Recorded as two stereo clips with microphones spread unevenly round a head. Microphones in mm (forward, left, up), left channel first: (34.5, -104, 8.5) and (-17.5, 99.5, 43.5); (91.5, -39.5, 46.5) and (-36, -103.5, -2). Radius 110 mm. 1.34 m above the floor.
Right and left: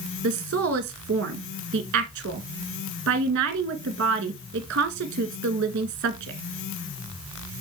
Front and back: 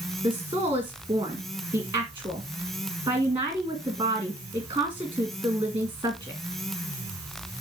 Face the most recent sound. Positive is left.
turn(degrees=140)